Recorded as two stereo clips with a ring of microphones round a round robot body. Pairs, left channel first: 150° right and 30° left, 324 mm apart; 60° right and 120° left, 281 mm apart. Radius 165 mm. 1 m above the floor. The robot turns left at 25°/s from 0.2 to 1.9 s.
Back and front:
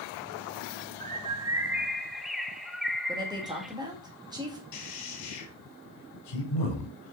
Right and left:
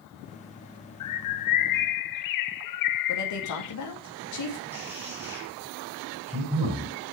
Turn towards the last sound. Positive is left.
turn(degrees=-155)